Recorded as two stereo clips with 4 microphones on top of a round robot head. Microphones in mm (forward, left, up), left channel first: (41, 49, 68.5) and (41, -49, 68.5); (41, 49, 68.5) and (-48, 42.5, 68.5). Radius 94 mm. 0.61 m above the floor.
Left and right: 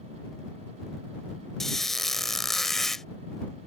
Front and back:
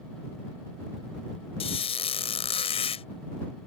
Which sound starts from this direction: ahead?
A squeak, at 1.6 s.